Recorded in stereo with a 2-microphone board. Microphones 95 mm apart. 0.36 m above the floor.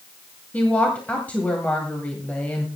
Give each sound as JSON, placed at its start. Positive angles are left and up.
{"t": 0.5, "sound": "a woman speaking", "side_deg": 15, "distance_m": 1.9}